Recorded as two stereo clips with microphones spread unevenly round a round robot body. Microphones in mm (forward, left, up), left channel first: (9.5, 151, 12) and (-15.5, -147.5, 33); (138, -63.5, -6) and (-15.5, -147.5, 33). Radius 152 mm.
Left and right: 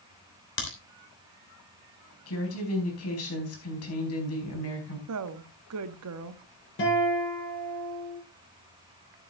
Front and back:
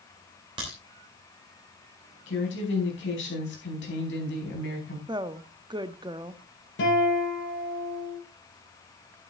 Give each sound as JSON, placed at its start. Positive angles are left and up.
{"t": 0.6, "sound": "a crack", "azimuth_deg": 130, "distance_m": 3.0}
{"t": 2.3, "sound": "a woman speaking", "azimuth_deg": 45, "distance_m": 4.5}
{"t": 5.1, "sound": "a woman speaking", "azimuth_deg": -80, "distance_m": 1.1}
{"t": 6.8, "sound": "a guitar", "azimuth_deg": 30, "distance_m": 7.0}